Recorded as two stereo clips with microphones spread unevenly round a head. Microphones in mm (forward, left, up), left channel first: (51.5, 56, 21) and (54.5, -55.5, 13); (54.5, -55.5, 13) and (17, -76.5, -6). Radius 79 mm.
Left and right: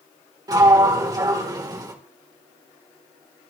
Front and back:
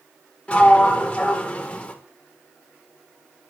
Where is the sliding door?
35° right, 3.5 m.